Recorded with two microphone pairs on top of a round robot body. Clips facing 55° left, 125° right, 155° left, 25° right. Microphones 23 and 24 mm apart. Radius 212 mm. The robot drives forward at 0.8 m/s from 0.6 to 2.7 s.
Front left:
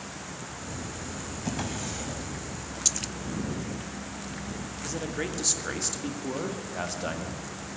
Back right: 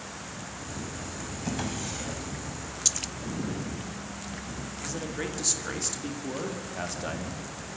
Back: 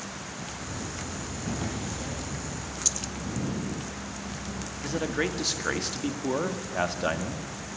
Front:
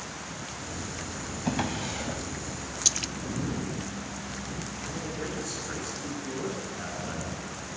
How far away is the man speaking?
About 2 m.